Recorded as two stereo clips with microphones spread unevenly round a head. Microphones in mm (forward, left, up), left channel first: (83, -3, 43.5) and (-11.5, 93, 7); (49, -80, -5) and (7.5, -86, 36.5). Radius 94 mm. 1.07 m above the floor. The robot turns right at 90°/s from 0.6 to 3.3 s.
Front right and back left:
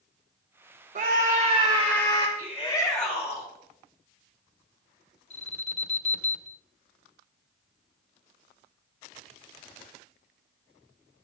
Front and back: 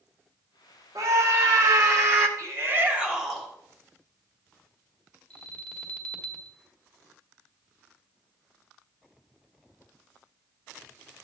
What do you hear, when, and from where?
0.9 s a scream: 120° left, 1.0 m; by 2.3 s 120° right, 1.0 m
2.4 s a shout: 155° right, 3.5 m; by 3.5 s 75° right, 3.5 m
5.3 s an alarm: 10° right, 1.7 m